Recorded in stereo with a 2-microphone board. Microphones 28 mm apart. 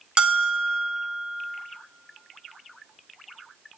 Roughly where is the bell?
Right.